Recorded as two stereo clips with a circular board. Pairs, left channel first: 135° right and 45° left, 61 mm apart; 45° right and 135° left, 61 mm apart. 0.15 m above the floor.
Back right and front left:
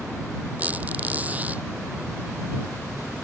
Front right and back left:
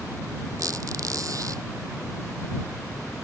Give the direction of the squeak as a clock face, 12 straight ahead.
8 o'clock.